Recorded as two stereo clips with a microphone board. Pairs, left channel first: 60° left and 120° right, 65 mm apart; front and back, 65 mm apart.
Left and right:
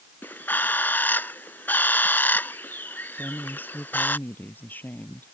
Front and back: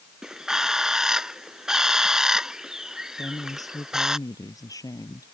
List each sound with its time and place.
0.2 s a bird: 105° left
3.2 s a woman speaking: straight ahead